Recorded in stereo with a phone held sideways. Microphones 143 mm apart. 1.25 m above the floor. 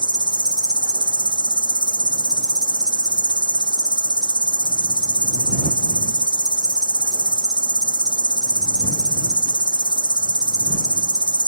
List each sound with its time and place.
0.0 s an insect: 30° right (ahead or behind)